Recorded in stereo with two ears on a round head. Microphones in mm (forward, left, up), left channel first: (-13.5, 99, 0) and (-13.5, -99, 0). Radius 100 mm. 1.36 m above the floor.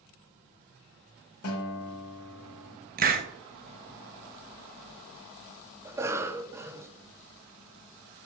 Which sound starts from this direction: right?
A hiss, at 3.0 s.